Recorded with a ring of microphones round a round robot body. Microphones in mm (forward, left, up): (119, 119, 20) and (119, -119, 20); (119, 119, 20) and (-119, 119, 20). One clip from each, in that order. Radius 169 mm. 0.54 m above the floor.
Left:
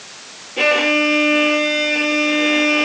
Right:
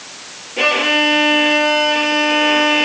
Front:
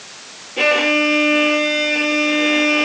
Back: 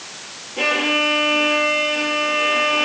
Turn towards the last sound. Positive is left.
turn(degrees=20)